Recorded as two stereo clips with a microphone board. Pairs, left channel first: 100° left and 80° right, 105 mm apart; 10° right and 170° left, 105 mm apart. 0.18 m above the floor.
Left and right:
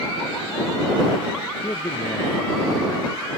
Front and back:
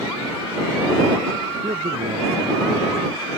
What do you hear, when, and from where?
1.6 s a man speaking: 160° left; by 3.3 s 155° left